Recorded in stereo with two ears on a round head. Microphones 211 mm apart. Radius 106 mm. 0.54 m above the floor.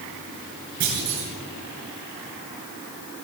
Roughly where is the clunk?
Right.